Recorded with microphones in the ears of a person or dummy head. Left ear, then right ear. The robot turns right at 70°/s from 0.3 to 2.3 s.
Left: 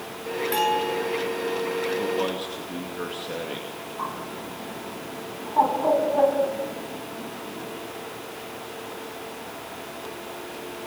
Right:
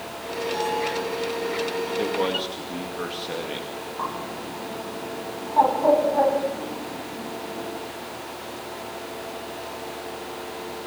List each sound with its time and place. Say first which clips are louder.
0.5 s a bell: left 3 dB; 145° left, 6 m; by 1.0 s 175° left, 6 m
2.0 s a man speaking: right 2 dB; 30° right (ahead or behind), 2.5 m; by 3.7 s 5° right (ahead or behind), 2.5 m
4.0 s a bird: right 1 dB; 10° right (ahead or behind), 3.5 m